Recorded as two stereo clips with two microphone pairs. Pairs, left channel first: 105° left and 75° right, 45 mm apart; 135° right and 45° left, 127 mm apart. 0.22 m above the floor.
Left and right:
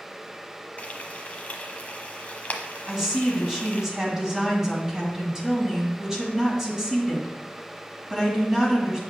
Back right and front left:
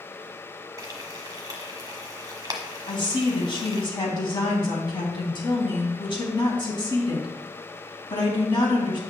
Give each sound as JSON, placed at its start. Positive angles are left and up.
{"t": 0.8, "sound": "frying", "azimuth_deg": 85, "distance_m": 1.1}
{"t": 2.9, "sound": "a woman speaking", "azimuth_deg": -140, "distance_m": 1.9}